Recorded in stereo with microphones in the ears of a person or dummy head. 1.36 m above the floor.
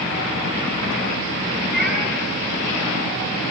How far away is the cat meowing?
About 4.5 m.